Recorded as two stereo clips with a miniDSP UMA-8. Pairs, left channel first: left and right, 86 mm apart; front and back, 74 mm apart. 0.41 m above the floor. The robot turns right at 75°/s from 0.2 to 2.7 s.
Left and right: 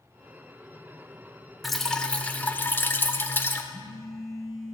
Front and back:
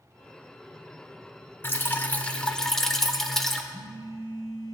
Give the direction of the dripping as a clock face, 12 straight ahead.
12 o'clock.